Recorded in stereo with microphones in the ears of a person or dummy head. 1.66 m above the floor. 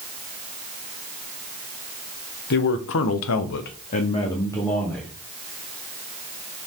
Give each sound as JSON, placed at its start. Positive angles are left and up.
{"t": 2.5, "sound": "a man speaking", "side_deg": 55, "distance_m": 1.3}